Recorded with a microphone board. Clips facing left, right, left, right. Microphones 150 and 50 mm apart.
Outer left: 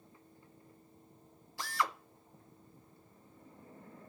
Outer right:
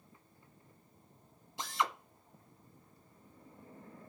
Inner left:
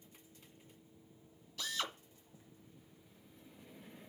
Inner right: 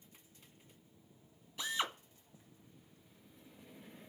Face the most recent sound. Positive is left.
turn(degrees=-20)  # may be behind; listen again after turning